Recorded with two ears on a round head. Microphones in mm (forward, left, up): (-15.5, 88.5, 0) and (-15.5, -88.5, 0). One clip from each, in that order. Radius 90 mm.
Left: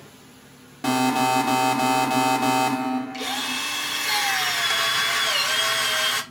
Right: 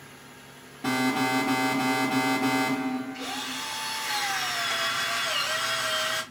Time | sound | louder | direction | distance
0.8 | an alarm | left 5 dB | 40° left (ahead or behind) | 1.1 m
3.1 | a drill | left 6 dB | 70° left (ahead or behind) | 0.9 m